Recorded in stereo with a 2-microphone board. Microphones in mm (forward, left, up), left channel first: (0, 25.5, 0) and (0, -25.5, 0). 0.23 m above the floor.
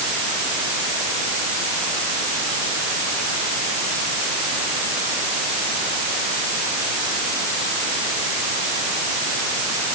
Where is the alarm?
No alarm in this recording.